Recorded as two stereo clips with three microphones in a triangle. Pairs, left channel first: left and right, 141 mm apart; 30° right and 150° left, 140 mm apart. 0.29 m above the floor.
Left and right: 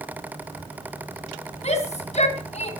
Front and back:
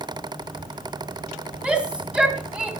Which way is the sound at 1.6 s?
70° left.